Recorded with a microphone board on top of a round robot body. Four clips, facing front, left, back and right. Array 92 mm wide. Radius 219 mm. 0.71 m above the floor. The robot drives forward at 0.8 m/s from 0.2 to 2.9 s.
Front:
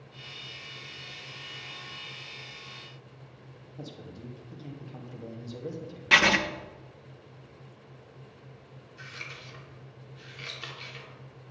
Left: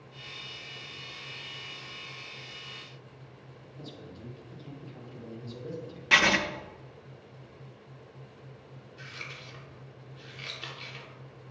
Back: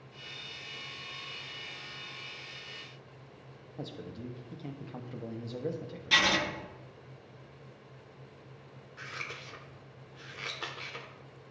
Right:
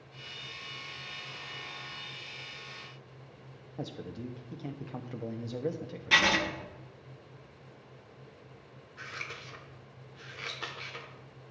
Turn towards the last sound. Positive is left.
turn(degrees=-145)